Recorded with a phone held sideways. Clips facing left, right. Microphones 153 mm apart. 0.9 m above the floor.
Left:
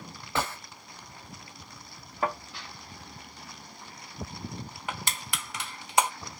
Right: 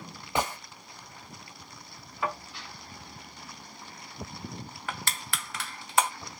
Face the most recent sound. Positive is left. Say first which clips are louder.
# even
turn(degrees=20)  # may be behind; listen again after turning